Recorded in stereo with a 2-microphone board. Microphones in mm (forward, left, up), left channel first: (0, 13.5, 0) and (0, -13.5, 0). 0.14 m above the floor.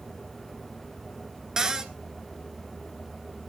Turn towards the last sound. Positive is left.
turn(degrees=-20)  # may be behind; listen again after turning